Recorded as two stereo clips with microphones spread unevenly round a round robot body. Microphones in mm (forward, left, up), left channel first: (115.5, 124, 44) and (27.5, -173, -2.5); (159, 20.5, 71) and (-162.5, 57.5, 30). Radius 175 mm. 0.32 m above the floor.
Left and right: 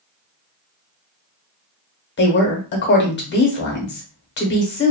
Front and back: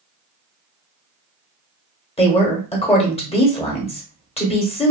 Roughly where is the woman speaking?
Ahead left.